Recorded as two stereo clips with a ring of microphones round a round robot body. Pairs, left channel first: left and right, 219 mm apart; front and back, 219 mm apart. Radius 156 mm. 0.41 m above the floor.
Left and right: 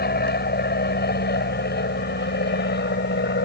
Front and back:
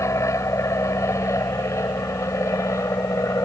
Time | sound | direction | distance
0.0 | an aircraft | 70° left | ?